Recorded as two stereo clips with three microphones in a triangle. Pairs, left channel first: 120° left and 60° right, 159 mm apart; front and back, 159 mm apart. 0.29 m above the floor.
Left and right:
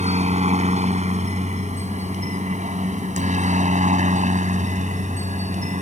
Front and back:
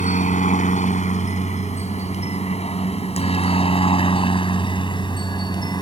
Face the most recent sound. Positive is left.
turn(degrees=-55)